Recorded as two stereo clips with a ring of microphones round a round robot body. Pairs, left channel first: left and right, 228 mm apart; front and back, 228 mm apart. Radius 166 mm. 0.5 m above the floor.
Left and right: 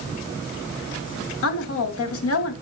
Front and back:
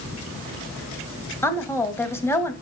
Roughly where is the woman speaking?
Left.